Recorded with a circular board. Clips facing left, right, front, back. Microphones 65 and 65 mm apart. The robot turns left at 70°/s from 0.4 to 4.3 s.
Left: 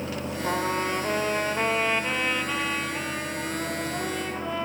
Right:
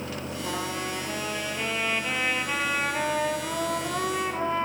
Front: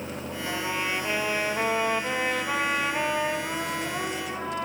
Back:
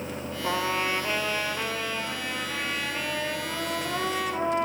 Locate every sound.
0.4 s a trumpet: 120° left, 0.9 m; by 4.7 s 150° right, 0.9 m